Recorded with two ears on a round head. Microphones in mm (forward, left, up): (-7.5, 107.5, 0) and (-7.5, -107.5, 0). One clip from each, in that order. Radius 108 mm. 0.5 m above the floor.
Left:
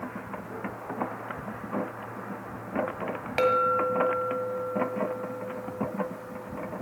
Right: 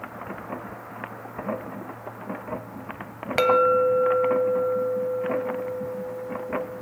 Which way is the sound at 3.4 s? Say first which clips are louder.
Right 5 dB; 25° right (ahead or behind).